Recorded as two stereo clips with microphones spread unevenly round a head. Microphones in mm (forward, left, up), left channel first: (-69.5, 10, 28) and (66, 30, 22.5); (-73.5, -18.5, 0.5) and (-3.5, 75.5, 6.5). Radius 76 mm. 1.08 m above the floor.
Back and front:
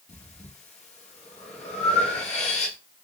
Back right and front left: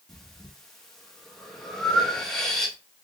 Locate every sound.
0.1 s breathing: 145° left, 1.1 m